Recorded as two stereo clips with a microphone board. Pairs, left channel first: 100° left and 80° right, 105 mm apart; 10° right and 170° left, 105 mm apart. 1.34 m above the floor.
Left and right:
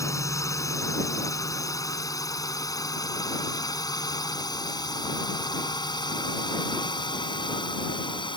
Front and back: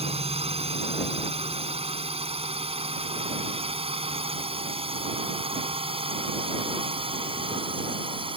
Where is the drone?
160° left; by 8.4 s 140° left.